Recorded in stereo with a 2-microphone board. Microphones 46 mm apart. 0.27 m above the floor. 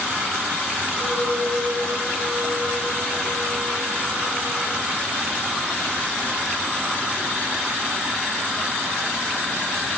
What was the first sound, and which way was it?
A clink, 70° right (ahead or behind).